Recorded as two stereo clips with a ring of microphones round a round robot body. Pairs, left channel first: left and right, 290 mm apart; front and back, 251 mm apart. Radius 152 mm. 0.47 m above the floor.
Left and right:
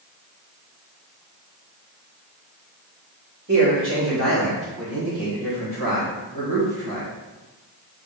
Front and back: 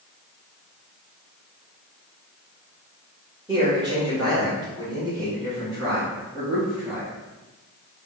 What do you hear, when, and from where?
3.5 s a man speaking: 115° right, 1.6 m; by 7.1 s 105° right, 3.5 m